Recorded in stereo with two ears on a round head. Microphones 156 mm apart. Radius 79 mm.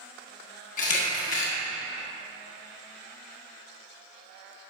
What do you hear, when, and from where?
0.8 s a camera shutter: 45° left (ahead or behind), 1.4 m